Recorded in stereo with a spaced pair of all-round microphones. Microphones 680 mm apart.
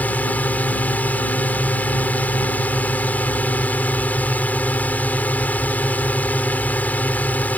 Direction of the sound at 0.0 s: Centre (ahead or behind).